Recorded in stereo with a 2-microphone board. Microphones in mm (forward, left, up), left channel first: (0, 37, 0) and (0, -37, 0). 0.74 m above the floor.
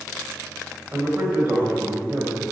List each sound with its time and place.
0.9 s a man speaking: 25° right (ahead or behind), 4 m